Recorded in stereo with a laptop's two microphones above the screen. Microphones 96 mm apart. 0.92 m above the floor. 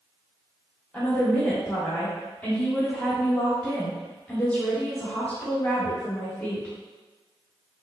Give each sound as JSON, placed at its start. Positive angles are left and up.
{"t": 0.9, "sound": "a woman speaking", "side_deg": 15, "distance_m": 1.6}